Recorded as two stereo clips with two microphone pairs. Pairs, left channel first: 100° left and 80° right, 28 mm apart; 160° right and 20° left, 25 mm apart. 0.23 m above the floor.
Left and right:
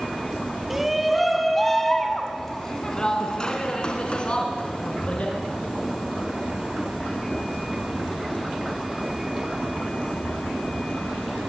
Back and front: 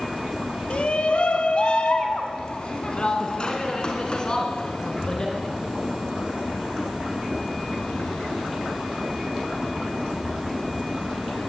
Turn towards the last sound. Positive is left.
turn(degrees=140)